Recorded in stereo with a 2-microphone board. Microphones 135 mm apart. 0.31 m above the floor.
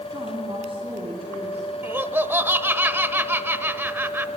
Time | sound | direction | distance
0.1 | a woman speaking | 35° right (ahead or behind) | 3 m
1.8 | laughter | 15° right (ahead or behind) | 0.9 m